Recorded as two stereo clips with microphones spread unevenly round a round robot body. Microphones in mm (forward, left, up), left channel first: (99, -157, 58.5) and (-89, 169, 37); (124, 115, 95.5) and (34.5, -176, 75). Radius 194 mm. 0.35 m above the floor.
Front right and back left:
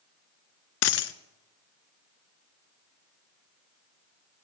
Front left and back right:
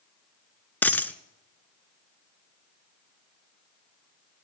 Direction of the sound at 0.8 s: 10° right.